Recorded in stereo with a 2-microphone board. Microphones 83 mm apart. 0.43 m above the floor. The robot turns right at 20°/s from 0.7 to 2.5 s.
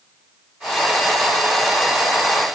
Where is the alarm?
No alarm in this recording.